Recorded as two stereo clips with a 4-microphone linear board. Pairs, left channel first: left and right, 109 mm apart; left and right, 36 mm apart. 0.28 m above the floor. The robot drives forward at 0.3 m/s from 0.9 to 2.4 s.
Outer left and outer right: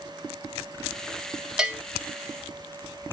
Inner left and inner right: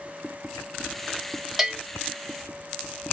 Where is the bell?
5° right (ahead or behind), 0.8 m.